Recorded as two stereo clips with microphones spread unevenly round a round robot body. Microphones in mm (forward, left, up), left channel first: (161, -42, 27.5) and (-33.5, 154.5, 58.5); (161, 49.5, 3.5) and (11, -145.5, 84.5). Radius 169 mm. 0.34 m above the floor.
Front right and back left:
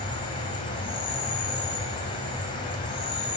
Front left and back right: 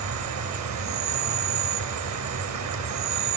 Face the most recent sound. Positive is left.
turn(degrees=-115)